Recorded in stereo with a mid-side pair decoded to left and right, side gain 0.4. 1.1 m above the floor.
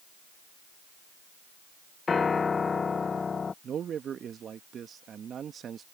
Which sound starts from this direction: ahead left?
A piano, at 2.1 s.